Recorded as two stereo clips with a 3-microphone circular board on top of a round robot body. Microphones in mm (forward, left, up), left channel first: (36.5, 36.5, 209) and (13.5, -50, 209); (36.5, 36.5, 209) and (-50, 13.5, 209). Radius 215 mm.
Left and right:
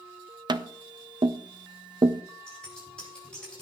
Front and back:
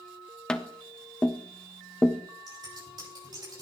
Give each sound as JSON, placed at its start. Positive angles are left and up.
{"t": 0.5, "sound": "tapping", "azimuth_deg": -65, "distance_m": 0.5}
{"t": 2.5, "sound": "scissors", "azimuth_deg": 155, "distance_m": 6.5}